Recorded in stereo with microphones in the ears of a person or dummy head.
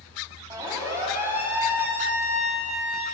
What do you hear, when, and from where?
0.5 s a siren: 15° right (ahead or behind), 6 m; by 3.0 s 5° right (ahead or behind), 7 m